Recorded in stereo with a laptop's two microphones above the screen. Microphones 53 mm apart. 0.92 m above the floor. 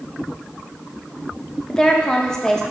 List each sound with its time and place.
1.7 s a woman speaking: 10° left (ahead or behind), 0.9 m